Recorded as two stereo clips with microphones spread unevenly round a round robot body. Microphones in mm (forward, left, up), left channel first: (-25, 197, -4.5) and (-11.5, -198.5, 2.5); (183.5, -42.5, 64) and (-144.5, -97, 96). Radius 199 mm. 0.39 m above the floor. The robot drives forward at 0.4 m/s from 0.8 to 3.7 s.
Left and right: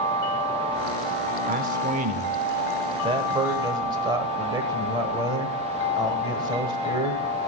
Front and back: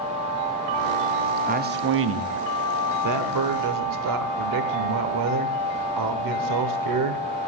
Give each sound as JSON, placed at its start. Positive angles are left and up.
{"t": 1.5, "sound": "a man speaking", "azimuth_deg": -125, "distance_m": 0.8}